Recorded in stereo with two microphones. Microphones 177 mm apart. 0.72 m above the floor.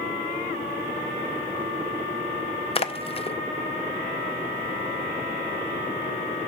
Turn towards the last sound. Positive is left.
turn(degrees=30)  # may be behind; listen again after turning